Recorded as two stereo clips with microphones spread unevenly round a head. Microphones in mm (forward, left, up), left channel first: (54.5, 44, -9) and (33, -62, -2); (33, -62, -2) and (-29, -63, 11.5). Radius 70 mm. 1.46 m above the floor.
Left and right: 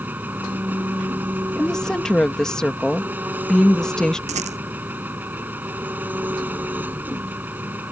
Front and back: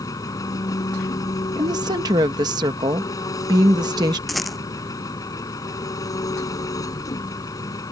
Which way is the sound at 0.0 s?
30° right.